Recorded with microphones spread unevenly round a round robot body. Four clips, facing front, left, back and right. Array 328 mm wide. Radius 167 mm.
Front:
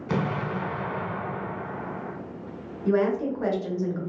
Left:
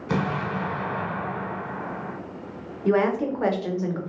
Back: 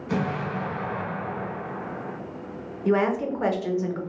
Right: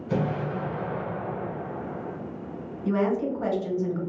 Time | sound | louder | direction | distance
0.1 | an explosion | left 1 dB, even | 65° left | 1.2 m
2.9 | a woman speaking | left 3 dB, back 1 dB | 95° left | 0.9 m